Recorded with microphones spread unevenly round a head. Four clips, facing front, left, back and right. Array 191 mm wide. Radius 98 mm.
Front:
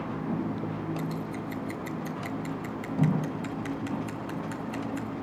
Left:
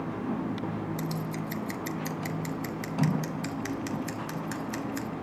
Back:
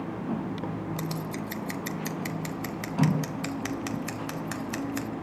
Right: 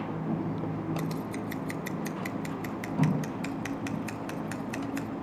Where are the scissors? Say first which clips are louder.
Even, even; straight behind, 1.1 m.